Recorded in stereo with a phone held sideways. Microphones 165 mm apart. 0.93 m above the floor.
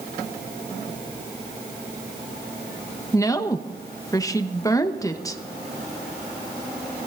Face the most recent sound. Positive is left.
turn(degrees=20)  # may be behind; listen again after turning